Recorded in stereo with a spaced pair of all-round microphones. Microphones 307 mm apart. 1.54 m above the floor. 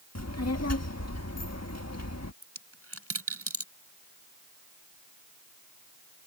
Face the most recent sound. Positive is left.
turn(degrees=-50)  # may be behind; listen again after turning